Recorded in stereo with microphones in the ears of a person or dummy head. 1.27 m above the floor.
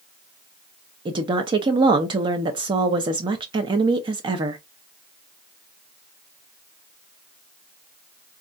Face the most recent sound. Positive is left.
turn(degrees=-25)  # may be behind; listen again after turning